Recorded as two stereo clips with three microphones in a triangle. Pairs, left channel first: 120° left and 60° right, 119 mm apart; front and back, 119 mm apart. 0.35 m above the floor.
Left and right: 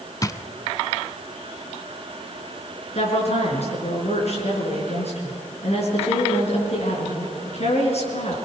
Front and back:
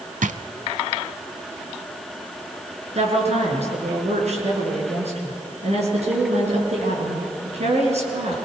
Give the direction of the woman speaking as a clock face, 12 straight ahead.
7 o'clock.